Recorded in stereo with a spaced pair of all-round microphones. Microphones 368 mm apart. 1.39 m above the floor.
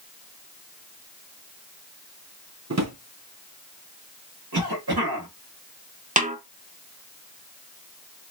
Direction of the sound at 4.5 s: 80° right.